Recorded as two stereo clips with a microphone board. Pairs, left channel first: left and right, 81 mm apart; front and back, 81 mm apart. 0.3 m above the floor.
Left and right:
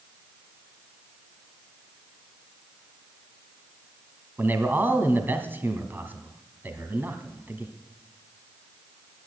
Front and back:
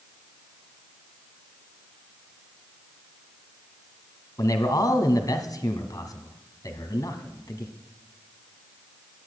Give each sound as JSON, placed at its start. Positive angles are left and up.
{"t": 4.4, "sound": "a man speaking", "azimuth_deg": -30, "distance_m": 1.9}